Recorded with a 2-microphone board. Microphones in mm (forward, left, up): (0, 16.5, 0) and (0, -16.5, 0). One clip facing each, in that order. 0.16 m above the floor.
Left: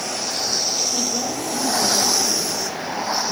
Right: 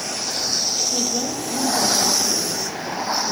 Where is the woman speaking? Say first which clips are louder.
Even; 25° right (ahead or behind), 4 m.